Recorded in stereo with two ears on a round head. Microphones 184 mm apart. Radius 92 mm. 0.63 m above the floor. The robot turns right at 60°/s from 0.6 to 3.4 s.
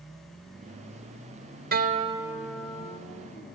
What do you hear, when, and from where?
1.7 s a guitar: 45° right, 0.7 m; by 3.0 s 30° left, 0.7 m